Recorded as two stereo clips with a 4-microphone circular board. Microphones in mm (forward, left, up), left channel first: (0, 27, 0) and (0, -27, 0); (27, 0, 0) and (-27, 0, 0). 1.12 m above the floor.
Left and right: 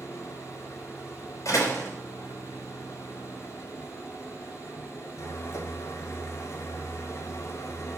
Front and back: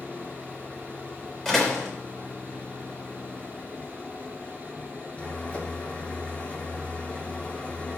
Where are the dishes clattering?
No dishes clattering in this recording.